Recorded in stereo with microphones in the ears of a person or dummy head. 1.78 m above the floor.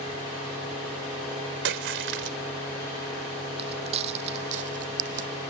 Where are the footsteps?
35° right (ahead or behind); by 5.3 s 50° right (ahead or behind).